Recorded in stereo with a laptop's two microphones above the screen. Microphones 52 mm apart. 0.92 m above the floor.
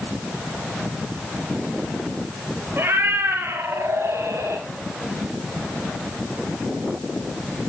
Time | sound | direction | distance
2.8 | a cat meowing | 50° right (ahead or behind) | 2.5 m